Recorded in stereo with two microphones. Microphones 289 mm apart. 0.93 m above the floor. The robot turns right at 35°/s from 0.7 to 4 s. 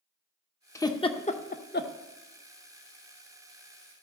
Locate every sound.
0.8 s a giggle: 10° left (ahead or behind), 0.5 m; by 1.9 s 40° left (ahead or behind), 0.5 m